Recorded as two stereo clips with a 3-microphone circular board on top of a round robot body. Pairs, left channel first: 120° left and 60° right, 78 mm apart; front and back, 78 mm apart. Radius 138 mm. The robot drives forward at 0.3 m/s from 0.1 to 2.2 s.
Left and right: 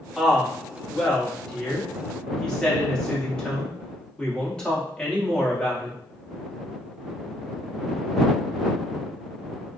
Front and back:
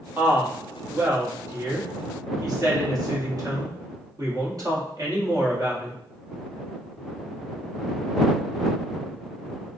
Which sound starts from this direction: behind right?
A woman speaking, at 0.2 s.